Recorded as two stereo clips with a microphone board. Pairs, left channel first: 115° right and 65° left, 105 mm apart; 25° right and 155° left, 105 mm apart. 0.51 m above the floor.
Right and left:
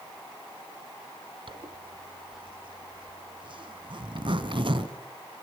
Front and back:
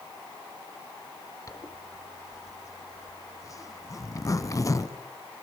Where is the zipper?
35° left, 1.3 m.